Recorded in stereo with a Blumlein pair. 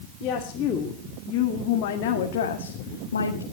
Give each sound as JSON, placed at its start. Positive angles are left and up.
{"t": 0.2, "sound": "a woman speaking", "azimuth_deg": 30, "distance_m": 3.0}